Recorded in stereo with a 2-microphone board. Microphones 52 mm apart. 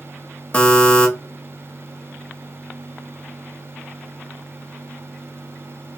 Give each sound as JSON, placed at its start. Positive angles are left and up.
{"t": 0.5, "sound": "a buzzer", "side_deg": 25, "distance_m": 0.8}